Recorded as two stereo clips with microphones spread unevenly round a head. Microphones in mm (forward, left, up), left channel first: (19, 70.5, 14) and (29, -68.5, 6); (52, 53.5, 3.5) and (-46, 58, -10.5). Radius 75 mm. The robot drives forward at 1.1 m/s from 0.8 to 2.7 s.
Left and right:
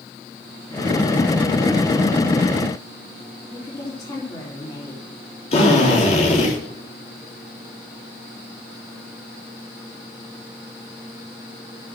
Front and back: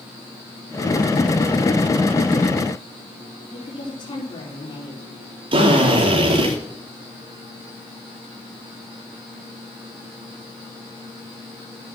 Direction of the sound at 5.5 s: 150° left.